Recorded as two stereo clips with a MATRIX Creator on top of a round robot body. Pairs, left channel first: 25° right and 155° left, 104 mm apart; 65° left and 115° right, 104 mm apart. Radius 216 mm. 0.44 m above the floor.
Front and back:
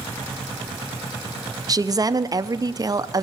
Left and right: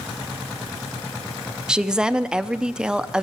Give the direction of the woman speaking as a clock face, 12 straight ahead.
6 o'clock.